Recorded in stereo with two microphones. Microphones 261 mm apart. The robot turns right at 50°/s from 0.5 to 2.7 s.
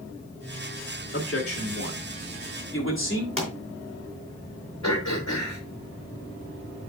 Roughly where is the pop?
Left.